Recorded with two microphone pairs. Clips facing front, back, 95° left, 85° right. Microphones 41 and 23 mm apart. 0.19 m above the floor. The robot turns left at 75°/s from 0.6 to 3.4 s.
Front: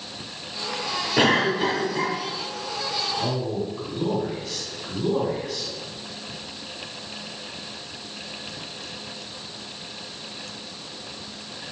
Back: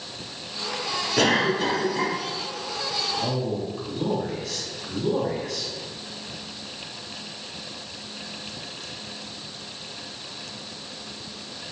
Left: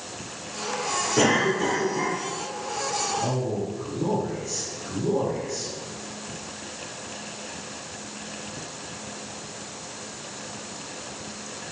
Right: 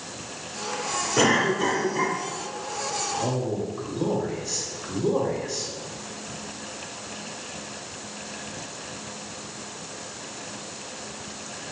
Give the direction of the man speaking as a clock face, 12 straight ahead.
2 o'clock.